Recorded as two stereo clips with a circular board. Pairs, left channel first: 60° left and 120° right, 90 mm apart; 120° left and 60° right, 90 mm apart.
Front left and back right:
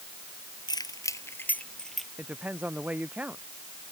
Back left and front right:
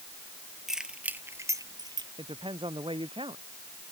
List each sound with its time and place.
0.7 s keys jangling: 25° left; by 2.1 s 30° right
2.2 s a woman speaking: 45° right